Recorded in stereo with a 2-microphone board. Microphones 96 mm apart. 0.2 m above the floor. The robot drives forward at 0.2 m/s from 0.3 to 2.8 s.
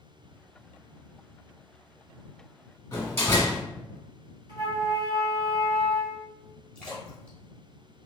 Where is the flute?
50° right (ahead or behind), 1.5 m.